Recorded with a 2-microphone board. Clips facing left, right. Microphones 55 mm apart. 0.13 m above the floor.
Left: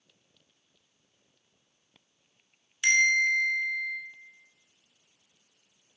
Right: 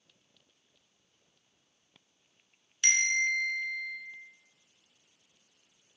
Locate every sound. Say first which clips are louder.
2.8 s a bell: left 5 dB; 15° left (ahead or behind), 0.7 m